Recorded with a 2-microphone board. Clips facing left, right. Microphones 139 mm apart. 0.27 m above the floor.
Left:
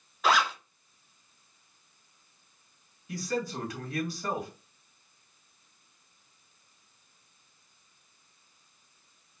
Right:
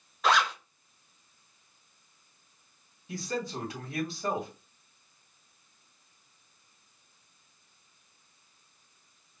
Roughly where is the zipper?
Centre.